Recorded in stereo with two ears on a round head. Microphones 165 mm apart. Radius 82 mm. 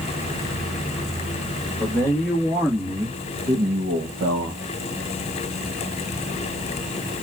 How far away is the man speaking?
About 1.9 m.